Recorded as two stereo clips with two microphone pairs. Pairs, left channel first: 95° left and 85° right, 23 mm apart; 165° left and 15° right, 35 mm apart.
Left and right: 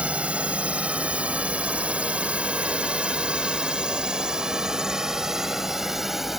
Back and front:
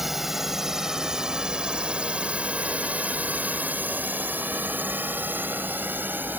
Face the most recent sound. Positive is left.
turn(degrees=-10)